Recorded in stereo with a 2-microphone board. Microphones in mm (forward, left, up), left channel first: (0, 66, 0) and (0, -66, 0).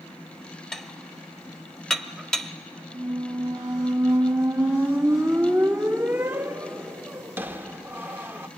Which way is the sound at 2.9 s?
15° right (ahead or behind).